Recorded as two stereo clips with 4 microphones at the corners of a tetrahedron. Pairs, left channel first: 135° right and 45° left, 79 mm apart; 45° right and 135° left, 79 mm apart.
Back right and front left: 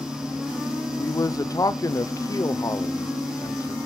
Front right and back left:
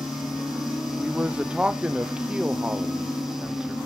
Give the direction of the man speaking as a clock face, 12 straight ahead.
5 o'clock.